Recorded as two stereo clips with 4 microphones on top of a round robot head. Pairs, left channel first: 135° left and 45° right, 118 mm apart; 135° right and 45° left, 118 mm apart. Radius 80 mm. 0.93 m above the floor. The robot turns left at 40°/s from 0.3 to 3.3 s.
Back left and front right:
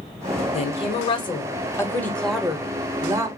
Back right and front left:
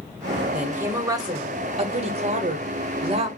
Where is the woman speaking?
120° left, 0.9 m; by 3.3 s 10° left, 0.9 m.